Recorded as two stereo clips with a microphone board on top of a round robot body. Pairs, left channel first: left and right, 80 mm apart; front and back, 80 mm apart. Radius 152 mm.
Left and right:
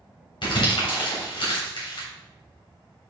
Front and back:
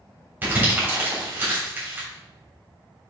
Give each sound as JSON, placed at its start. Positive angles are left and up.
{"t": 0.4, "sound": "crumpling", "azimuth_deg": 110, "distance_m": 3.0}